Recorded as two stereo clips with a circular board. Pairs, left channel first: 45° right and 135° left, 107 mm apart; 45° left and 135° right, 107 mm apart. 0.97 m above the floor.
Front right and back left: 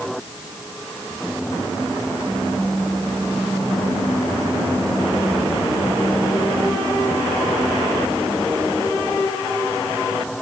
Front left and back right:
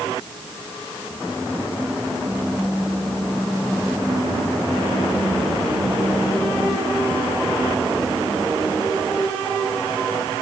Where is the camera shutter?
No camera shutter in this recording.